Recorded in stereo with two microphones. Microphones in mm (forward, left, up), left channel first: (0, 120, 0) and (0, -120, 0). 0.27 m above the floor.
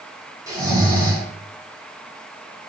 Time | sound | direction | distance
0.5 | snoring | 15° right (ahead or behind) | 1.1 m